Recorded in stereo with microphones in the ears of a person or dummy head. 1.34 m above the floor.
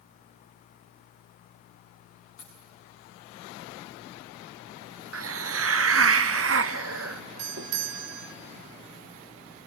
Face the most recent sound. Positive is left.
turn(degrees=-60)  # may be behind; listen again after turning